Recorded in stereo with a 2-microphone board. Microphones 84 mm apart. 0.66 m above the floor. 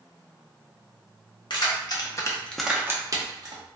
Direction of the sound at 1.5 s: 65° left (ahead or behind).